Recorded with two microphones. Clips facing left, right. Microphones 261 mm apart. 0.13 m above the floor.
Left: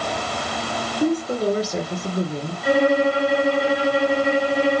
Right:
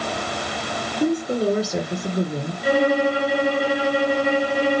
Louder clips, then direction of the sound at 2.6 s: Left 1 dB; centre (ahead or behind).